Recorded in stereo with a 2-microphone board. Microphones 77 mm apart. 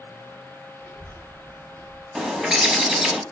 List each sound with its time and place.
0.8 s a child speaking: 25° left (ahead or behind), 0.6 m
2.1 s a bird: 5° right (ahead or behind), 0.6 m